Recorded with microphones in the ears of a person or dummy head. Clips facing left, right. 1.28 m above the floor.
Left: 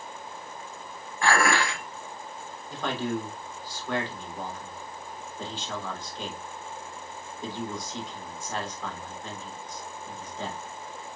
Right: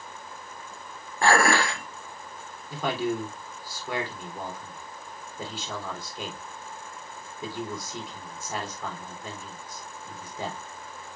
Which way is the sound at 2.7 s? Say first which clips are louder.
Right 2 dB; 10° right (ahead or behind).